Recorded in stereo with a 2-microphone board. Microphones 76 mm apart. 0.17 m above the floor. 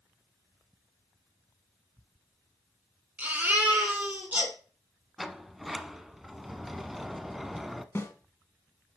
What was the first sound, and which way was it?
A baby crying, 20° right (ahead or behind).